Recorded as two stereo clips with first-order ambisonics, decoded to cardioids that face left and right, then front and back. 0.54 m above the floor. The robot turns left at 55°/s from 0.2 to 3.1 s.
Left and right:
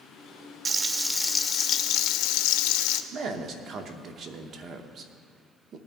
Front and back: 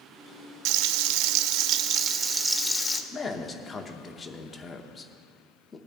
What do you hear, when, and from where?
0.7 s frying: 155° right, 0.6 m; by 3.0 s 75° left, 0.6 m
3.1 s a man speaking: 65° right, 0.8 m